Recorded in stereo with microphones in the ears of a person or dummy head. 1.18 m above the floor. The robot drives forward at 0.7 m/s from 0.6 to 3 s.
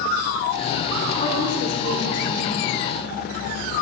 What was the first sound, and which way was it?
A woman speaking, 45° left (ahead or behind).